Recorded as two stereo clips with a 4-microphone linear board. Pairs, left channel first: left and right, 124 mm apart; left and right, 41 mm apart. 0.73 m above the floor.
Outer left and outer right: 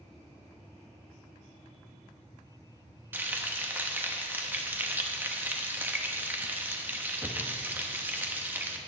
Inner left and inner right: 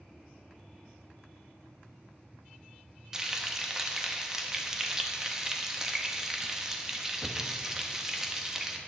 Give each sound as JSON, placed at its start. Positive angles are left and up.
{"t": 3.1, "sound": "frying", "side_deg": -15, "distance_m": 1.1}